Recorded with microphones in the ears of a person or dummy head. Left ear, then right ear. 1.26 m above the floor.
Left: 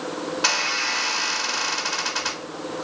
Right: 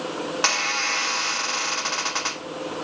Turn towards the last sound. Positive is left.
turn(degrees=-35)  # may be behind; listen again after turning